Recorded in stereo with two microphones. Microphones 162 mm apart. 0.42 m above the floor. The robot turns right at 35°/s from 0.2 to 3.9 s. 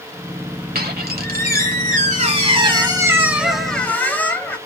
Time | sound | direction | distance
0.8 | a squeak | 100° right | 1.3 m